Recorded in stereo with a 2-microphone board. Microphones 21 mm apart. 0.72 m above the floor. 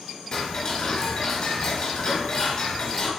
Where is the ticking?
40° left (ahead or behind), 1.3 m.